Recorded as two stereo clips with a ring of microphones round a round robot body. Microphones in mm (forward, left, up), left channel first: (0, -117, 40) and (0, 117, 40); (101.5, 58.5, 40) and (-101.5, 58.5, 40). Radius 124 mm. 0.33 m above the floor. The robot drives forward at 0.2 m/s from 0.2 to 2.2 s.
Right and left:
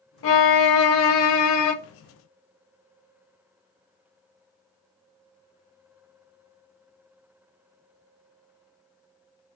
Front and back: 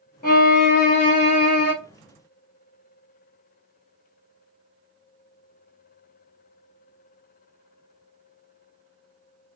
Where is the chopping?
I don't hear chopping.